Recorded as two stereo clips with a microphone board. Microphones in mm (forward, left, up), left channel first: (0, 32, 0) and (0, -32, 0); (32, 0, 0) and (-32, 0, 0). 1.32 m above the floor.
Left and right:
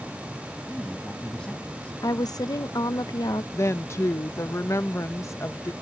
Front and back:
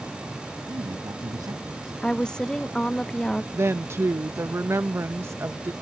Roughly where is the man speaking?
Behind.